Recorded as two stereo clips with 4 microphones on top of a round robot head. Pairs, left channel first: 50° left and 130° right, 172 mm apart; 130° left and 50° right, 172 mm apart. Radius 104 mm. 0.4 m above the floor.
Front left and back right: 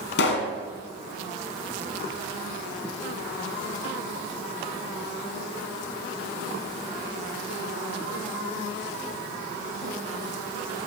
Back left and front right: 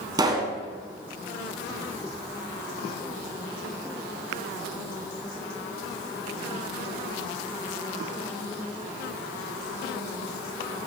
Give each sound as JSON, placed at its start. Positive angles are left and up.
{"t": 0.2, "sound": "a pop", "azimuth_deg": 25, "distance_m": 1.1}